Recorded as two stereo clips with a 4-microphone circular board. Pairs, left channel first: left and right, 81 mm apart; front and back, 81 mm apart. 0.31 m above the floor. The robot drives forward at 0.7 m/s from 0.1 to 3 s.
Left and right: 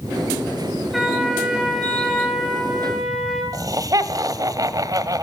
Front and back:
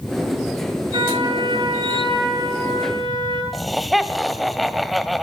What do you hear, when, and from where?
0.9 s a trumpet: 175° right, 5.5 m
3.5 s laughter: 90° right, 2 m